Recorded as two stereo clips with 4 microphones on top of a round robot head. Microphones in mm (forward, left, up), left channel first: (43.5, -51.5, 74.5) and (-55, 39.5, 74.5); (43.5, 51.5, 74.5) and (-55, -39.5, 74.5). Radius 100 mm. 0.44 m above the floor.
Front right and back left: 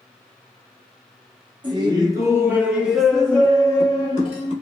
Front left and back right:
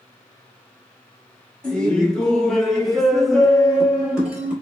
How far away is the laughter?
About 1.2 m.